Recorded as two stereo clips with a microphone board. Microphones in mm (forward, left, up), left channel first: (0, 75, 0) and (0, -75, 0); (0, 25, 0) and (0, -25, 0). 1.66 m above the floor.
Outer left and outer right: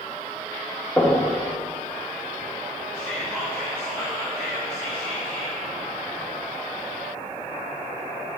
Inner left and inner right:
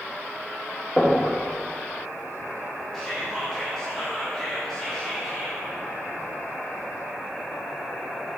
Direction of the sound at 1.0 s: 15° left (ahead or behind).